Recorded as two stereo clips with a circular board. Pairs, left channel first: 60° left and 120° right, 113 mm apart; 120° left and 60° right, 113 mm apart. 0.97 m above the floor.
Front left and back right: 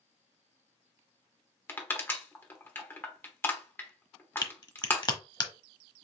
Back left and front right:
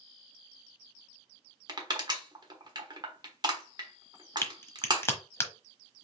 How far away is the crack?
About 0.9 m.